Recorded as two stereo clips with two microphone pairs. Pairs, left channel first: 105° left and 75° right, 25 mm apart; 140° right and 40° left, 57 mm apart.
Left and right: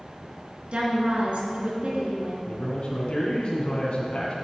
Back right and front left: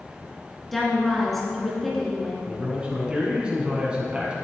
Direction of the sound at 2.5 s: 105° left.